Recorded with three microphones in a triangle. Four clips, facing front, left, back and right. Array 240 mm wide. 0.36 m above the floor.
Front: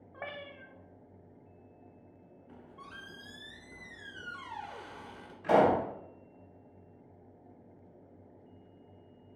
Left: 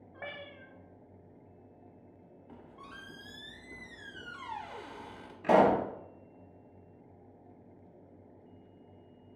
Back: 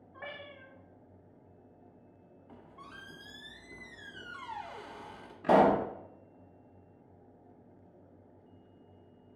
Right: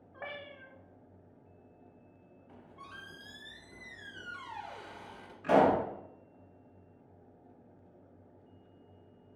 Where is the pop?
160° left, 0.8 m.